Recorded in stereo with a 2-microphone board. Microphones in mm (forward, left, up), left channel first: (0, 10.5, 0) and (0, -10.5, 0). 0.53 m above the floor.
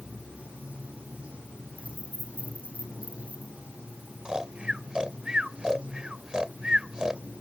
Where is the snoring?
35° right (ahead or behind).